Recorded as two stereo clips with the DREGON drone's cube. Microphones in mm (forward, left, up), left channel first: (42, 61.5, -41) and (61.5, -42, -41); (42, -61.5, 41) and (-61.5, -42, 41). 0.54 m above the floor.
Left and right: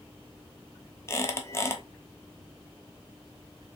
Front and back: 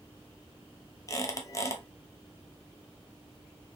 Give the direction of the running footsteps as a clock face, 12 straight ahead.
I don't hear running footsteps.